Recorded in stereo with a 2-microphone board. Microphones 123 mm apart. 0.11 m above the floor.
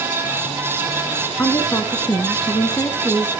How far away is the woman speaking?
About 1.1 m.